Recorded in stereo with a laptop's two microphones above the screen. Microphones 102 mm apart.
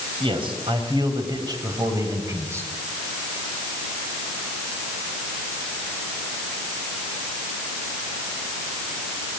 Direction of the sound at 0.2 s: 55° right (ahead or behind).